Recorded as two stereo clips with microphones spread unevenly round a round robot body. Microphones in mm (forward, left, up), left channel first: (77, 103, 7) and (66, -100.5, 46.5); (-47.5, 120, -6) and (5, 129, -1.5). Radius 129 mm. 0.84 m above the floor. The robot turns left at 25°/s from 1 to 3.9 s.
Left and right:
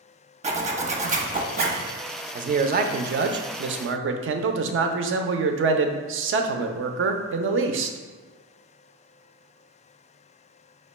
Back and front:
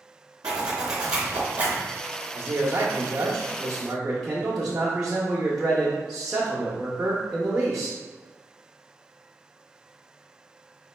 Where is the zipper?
35° right, 0.8 m; by 1.9 s 55° right, 0.8 m.